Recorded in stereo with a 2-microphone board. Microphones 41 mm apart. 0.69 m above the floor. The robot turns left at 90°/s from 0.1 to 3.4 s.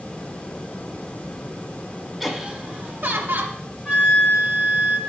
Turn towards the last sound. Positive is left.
turn(degrees=45)  # may be behind; listen again after turning